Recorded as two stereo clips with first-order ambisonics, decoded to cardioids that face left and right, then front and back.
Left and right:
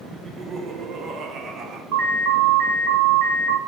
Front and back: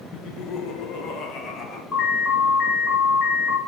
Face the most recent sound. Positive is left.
turn(degrees=-70)